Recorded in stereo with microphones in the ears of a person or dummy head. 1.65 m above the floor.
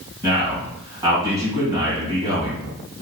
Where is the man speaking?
30° right (ahead or behind), 1.9 m.